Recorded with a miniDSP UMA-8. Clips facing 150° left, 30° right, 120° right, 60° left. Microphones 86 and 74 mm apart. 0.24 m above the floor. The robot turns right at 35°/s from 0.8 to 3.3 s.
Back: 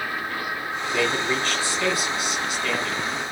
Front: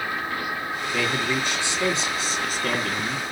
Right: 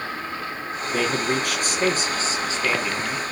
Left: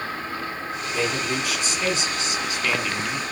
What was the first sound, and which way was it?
A man speaking, 120° right.